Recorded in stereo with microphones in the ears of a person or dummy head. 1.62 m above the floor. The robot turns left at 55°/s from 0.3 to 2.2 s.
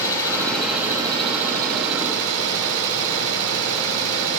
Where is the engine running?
20° left, 4.5 m; by 4.4 s 85° right, 4.5 m.